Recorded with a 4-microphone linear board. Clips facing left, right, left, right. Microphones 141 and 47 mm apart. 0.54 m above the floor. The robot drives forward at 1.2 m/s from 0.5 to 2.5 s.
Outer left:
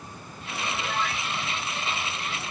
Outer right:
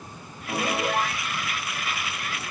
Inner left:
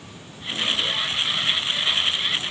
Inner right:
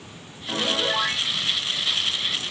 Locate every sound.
0.5 s a piano: 45° right (ahead or behind); by 1.3 s 40° right (ahead or behind)